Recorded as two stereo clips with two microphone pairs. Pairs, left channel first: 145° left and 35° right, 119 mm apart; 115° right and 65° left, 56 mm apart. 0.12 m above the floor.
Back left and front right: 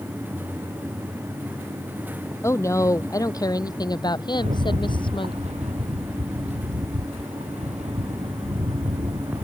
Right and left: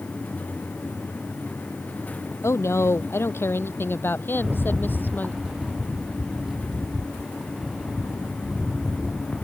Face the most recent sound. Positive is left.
turn(degrees=-20)